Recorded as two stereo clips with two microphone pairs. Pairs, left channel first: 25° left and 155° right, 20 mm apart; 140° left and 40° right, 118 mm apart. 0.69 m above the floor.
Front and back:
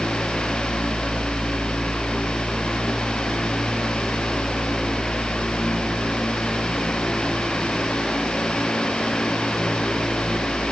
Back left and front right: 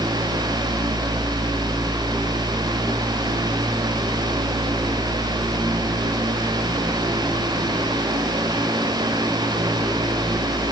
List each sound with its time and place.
Only background noise.